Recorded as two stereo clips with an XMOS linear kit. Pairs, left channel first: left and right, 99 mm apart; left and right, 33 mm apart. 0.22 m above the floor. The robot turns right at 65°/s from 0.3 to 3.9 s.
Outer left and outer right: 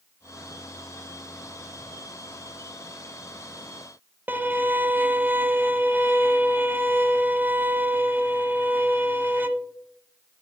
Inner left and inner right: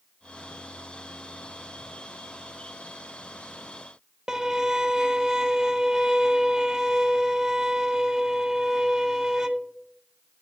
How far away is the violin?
About 0.5 m.